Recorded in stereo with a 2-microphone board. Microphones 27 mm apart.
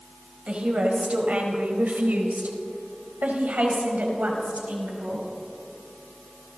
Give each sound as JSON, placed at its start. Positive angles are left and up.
{"t": 0.5, "sound": "a woman speaking", "side_deg": -45, "distance_m": 4.0}